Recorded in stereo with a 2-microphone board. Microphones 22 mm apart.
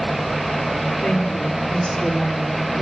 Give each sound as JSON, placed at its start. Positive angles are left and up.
{"t": 1.0, "sound": "a woman speaking", "side_deg": 75, "distance_m": 7.5}